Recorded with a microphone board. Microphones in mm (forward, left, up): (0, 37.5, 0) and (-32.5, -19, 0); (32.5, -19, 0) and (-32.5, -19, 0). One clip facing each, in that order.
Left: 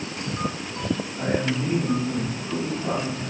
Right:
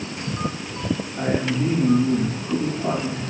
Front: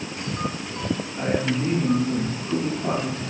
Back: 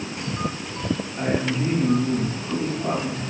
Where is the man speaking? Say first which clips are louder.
Right 3 dB, even; 110° right, 6 m; by 3.2 s 95° right, 7.5 m.